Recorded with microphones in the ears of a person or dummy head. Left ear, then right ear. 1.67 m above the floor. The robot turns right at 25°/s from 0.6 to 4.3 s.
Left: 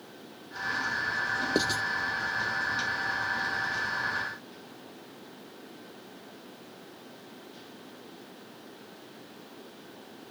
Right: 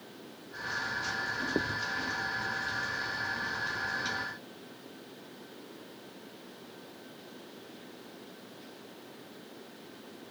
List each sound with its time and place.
1.6 s writing: 65° left (ahead or behind); by 1.8 s 70° left (ahead or behind)